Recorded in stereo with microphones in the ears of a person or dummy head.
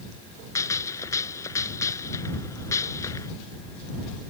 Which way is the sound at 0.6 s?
25° left (ahead or behind).